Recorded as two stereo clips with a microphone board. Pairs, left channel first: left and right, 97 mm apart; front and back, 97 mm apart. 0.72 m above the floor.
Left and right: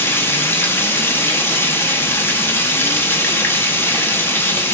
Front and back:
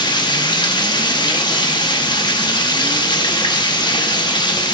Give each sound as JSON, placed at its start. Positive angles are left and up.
{"t": 0.0, "sound": "running water", "azimuth_deg": 25, "distance_m": 0.7}